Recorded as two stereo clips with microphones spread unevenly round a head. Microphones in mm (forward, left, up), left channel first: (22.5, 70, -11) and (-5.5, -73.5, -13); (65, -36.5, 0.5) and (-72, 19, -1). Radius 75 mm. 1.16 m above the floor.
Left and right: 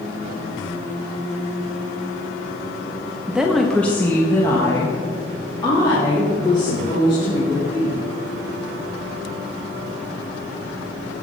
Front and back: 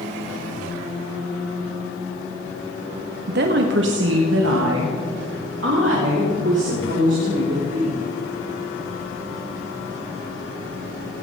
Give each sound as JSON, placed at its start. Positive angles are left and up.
{"t": 3.3, "sound": "a woman speaking", "azimuth_deg": 180, "distance_m": 0.8}